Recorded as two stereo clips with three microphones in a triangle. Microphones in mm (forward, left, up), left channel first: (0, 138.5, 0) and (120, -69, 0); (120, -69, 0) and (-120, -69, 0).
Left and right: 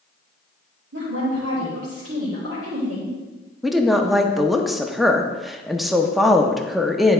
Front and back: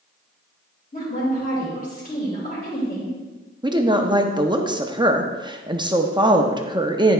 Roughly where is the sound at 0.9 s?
Ahead right.